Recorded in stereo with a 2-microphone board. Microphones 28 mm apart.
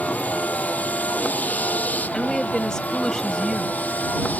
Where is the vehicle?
75° left (ahead or behind); by 4.4 s 80° left.